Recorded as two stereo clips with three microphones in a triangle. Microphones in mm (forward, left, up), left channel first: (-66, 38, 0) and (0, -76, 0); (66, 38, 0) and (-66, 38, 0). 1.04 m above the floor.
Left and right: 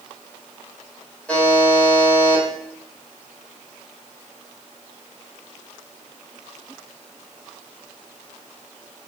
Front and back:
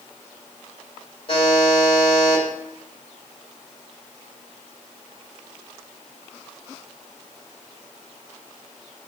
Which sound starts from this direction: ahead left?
A buzzer, at 1.3 s.